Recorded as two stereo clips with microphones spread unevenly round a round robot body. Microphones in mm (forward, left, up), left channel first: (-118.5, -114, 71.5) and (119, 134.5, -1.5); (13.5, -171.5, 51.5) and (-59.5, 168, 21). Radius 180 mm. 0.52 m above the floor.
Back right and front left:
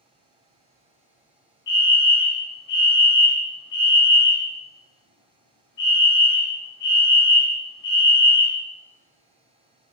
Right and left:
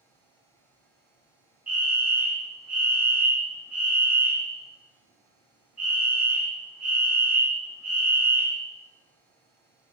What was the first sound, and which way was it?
A fire alarm, 175° right.